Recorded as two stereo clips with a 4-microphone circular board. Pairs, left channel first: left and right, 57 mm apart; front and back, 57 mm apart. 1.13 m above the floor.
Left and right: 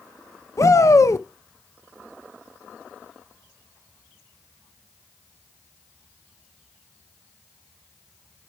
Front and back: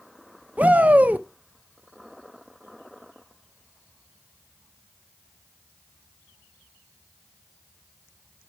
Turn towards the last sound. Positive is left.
turn(degrees=115)